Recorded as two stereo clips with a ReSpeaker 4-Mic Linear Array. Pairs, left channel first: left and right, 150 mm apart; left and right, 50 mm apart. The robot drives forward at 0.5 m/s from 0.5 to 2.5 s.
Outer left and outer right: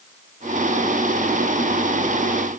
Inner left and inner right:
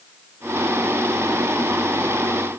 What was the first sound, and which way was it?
Only background noise.